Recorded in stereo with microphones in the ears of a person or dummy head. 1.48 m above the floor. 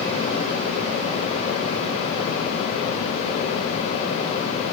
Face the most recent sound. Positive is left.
No sound to turn to.